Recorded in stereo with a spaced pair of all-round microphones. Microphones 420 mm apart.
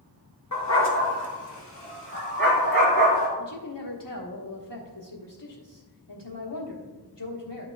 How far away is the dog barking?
About 1.6 m.